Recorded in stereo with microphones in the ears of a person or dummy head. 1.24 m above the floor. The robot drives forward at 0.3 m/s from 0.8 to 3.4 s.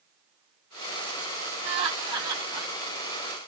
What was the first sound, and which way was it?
Laughter, 30° right (ahead or behind).